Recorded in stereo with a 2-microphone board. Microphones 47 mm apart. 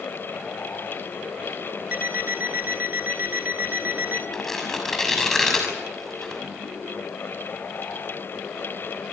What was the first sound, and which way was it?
An alarm clock, 40° right (ahead or behind).